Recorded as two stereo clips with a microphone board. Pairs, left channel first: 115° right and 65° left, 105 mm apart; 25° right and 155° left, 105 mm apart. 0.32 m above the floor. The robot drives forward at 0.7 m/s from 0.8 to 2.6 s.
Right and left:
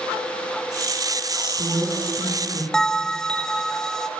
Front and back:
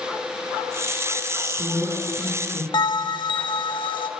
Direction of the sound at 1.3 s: 85° left.